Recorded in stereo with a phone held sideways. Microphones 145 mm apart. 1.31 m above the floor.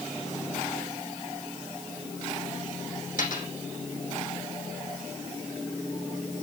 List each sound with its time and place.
3.2 s a dropped coin: 75° left (ahead or behind), 4.5 m